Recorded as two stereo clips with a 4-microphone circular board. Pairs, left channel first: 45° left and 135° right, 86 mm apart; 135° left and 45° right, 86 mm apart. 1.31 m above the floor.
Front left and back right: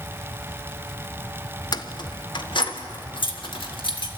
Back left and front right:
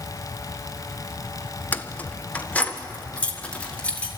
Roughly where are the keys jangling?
Left.